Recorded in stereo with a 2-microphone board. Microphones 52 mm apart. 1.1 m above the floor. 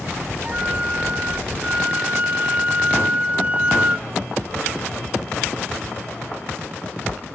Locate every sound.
0.4 s a flute: 30° right (ahead or behind), 0.7 m